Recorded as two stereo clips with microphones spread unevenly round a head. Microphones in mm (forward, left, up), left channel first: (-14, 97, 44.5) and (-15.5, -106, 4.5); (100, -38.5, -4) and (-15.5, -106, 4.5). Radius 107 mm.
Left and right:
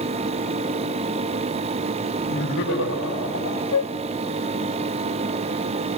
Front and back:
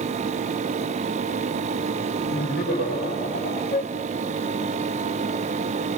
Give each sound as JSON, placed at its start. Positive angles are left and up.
{"t": 2.3, "sound": "laughter", "azimuth_deg": 45, "distance_m": 8.0}
{"t": 3.7, "sound": "a flute", "azimuth_deg": 65, "distance_m": 0.6}